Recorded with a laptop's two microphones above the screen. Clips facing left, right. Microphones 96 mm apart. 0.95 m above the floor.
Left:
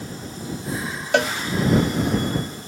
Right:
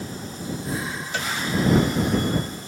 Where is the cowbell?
65° left (ahead or behind).